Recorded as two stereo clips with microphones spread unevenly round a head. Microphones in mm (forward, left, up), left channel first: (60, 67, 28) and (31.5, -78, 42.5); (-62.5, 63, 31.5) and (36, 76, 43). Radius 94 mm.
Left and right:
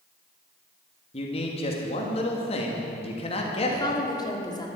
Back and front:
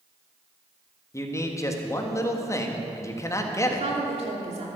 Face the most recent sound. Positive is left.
turn(degrees=15)